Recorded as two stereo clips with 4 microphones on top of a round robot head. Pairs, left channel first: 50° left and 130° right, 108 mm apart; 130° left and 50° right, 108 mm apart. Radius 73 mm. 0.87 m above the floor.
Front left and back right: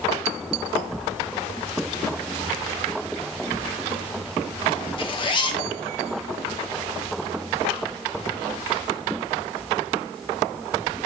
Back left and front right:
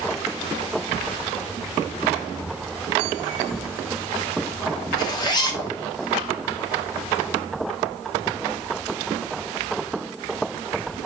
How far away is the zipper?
About 1.5 m.